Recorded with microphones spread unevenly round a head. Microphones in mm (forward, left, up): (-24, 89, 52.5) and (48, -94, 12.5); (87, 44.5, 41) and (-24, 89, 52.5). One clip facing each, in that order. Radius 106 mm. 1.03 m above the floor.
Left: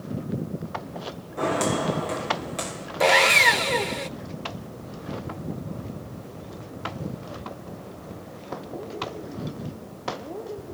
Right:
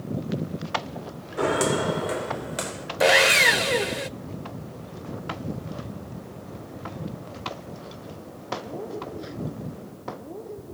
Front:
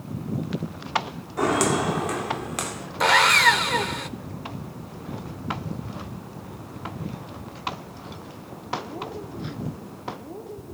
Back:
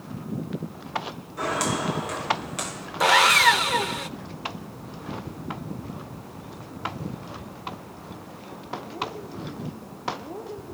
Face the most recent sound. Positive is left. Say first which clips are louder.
# right 1 dB, even
turn(degrees=-110)